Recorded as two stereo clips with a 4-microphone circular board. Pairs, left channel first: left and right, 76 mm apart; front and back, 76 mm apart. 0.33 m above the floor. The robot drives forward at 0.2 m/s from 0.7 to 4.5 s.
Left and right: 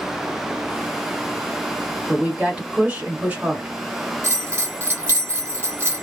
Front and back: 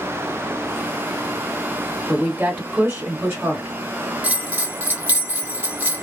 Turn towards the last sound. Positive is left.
turn(degrees=-125)